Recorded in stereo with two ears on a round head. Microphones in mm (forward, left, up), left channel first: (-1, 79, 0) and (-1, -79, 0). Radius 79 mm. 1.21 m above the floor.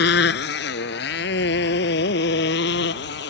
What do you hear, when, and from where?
0.0 s a motorcycle: 65° left (ahead or behind)